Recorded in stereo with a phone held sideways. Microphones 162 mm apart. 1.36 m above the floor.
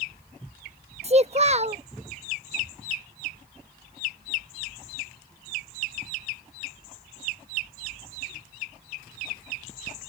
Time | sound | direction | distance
1.0 | a child speaking | 40° right (ahead or behind) | ?